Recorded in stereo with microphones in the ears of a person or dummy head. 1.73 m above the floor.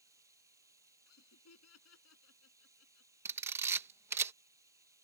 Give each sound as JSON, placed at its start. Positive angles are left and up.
{"t": 0.0, "sound": "running water", "side_deg": -15}
{"t": 1.1, "sound": "laughter", "side_deg": 85}
{"t": 3.2, "sound": "a camera shutter", "side_deg": -15}